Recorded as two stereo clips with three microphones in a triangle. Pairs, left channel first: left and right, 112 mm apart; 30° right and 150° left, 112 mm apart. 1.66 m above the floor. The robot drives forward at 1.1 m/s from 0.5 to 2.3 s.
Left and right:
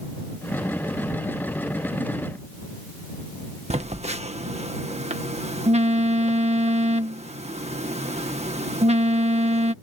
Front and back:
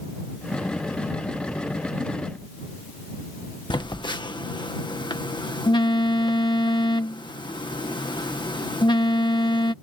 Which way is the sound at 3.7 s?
75° right.